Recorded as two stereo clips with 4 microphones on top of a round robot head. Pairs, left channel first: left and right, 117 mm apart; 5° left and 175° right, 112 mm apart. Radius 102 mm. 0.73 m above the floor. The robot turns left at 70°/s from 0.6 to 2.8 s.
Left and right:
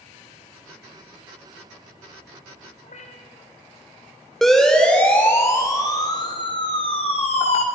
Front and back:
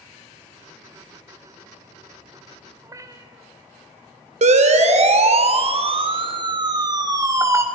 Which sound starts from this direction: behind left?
A cat meowing, at 2.8 s.